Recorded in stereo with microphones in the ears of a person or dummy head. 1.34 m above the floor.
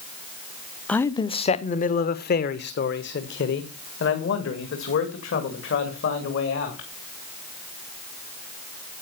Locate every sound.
0.9 s a man speaking: 5° left (ahead or behind), 0.6 m; by 6.9 s 65° left (ahead or behind), 3.5 m